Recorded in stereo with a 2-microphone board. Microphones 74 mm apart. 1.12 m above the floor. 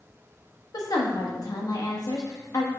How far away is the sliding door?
No sliding door in this recording.